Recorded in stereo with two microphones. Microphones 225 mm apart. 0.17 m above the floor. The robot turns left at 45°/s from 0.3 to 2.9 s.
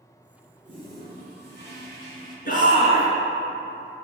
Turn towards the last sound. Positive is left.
turn(degrees=30)  # may be behind; listen again after turning